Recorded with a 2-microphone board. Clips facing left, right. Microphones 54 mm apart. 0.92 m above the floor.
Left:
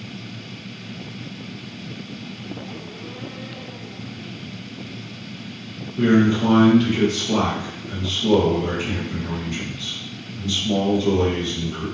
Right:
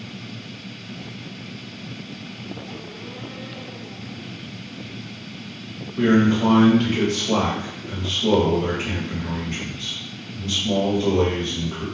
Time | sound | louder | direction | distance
6.0 | a man speaking | even | 40° right (ahead or behind) | 1.3 m